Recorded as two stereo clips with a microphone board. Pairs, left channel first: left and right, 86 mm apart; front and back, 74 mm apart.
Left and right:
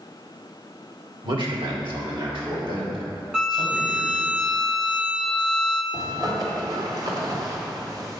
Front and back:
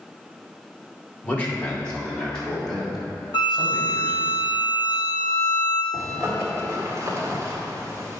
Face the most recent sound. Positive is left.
turn(degrees=-130)